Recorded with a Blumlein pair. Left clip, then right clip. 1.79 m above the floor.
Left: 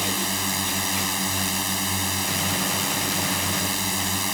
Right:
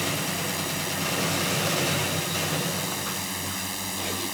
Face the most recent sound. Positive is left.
turn(degrees=20)